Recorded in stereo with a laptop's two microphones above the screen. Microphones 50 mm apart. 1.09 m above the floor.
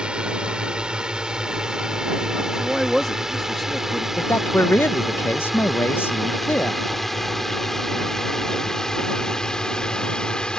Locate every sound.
0.0 s a drone: 20° right (ahead or behind); by 10.6 s 15° left (ahead or behind)
2.5 s a man speaking: 10° left (ahead or behind)
4.2 s a man speaking: 50° left (ahead or behind)